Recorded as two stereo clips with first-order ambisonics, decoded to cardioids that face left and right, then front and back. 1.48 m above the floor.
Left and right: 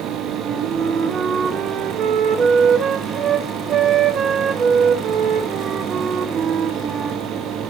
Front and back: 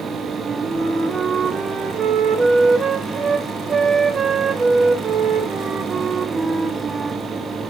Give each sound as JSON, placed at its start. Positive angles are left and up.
{"t": 0.4, "sound": "a flute", "azimuth_deg": -115, "distance_m": 1.0}